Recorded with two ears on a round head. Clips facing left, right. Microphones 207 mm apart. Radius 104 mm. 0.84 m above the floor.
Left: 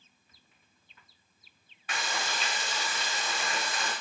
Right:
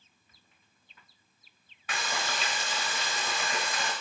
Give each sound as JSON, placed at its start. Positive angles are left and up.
{"t": 1.9, "sound": "frying", "side_deg": -70, "distance_m": 1.3}